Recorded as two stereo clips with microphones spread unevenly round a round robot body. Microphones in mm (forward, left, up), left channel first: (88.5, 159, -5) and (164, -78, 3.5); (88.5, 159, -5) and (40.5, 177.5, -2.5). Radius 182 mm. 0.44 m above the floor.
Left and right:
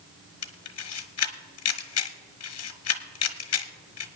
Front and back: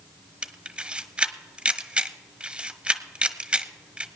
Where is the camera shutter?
90° left, 1.2 m.